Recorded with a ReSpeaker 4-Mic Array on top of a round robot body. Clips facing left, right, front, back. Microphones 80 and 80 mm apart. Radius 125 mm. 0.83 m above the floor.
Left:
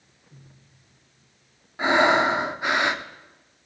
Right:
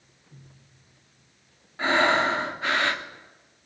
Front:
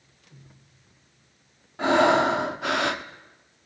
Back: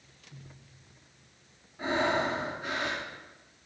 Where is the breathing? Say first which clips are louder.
Left 3 dB, front 9 dB; 15° left, 1.1 m.